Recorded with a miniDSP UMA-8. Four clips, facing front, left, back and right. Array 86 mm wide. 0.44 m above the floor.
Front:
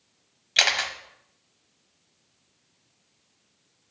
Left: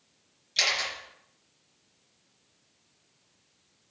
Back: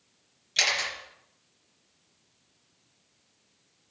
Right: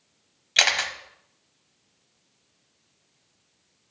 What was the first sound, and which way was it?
A camera shutter, 55° right.